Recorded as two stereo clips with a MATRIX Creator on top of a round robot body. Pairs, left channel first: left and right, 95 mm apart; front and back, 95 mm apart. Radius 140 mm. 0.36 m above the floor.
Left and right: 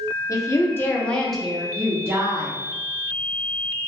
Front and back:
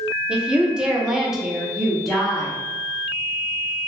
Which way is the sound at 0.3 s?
105° left.